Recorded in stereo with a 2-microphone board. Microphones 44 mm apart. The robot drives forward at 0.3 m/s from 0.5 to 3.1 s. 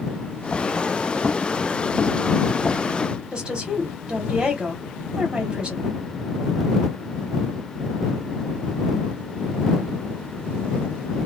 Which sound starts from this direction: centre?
A woman speaking, at 3.3 s.